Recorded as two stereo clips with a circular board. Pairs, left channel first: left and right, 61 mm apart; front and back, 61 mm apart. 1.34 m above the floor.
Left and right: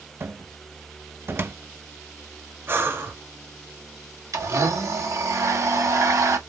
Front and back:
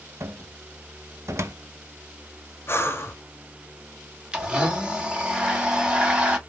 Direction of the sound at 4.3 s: 105° right.